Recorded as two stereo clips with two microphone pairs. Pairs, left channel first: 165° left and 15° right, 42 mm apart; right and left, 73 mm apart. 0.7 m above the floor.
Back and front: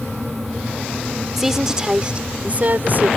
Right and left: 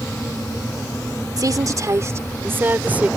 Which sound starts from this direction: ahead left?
A woman speaking, at 1.4 s.